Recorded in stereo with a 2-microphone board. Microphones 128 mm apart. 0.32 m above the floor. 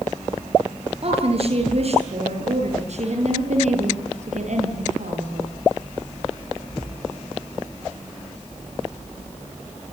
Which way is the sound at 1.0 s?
45° right (ahead or behind).